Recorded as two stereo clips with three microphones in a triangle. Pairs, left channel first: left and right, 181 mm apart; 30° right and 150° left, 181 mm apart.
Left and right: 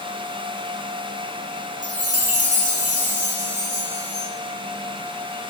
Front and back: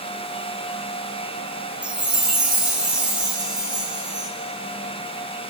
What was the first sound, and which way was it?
A chime, 125° right.